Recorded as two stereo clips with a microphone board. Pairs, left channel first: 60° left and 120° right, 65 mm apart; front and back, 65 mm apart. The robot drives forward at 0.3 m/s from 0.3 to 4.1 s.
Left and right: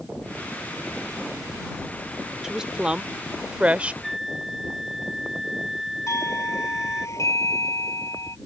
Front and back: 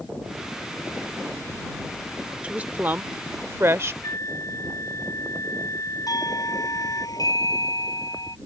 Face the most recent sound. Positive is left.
turn(degrees=20)